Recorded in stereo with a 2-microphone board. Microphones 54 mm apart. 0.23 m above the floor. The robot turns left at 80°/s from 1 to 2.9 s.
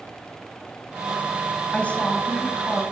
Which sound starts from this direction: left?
A woman speaking, at 1.7 s.